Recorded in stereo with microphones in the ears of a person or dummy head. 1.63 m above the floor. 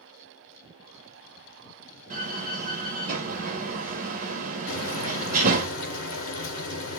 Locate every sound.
2.1 s a door slam: 45° right (ahead or behind), 1.0 m
4.7 s frying: 75° left (ahead or behind), 1.4 m